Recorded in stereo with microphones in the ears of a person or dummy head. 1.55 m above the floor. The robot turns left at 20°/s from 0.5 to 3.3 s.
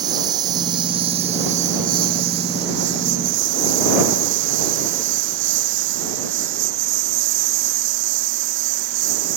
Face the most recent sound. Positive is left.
turn(degrees=-75)  # may be behind; listen again after turning